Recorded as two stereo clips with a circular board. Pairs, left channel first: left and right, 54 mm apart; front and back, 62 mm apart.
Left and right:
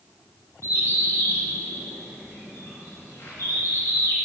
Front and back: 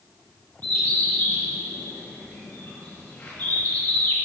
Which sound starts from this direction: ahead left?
A bird, at 0.6 s.